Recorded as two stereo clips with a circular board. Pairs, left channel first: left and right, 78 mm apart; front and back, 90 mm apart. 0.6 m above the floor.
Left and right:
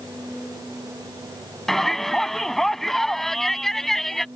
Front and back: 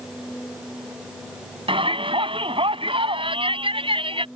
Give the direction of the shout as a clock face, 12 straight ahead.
6 o'clock.